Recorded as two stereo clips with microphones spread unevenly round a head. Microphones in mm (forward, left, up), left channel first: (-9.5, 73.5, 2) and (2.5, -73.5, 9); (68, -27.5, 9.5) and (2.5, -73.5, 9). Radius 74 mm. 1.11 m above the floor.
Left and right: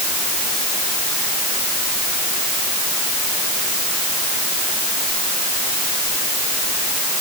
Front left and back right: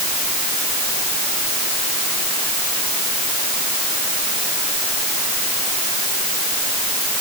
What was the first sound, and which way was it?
Only background noise.